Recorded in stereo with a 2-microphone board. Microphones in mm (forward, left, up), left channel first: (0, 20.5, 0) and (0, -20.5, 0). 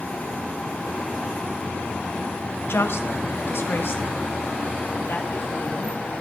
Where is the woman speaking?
80° left, 0.9 m; by 6.0 s 60° left (ahead or behind), 3 m.